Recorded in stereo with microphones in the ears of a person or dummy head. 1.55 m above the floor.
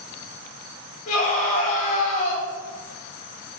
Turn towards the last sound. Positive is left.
turn(degrees=50)  # may be behind; listen again after turning